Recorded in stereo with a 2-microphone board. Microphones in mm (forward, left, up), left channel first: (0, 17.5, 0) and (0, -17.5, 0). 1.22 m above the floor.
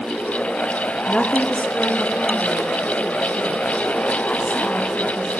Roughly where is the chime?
I don't hear a chime.